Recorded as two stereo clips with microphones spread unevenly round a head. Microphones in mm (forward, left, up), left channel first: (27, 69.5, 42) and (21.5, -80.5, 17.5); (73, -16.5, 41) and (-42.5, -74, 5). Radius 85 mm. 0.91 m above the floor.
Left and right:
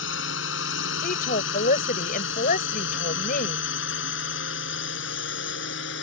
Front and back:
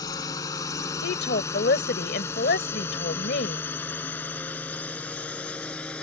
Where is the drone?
95° left; by 6.0 s 110° left.